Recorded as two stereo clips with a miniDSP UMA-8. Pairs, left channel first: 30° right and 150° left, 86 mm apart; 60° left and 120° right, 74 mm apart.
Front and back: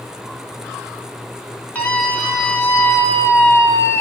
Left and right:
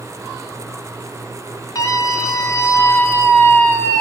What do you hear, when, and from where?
1.8 s a scream: 35° left, 2.5 m; by 4.0 s 10° left, 1.6 m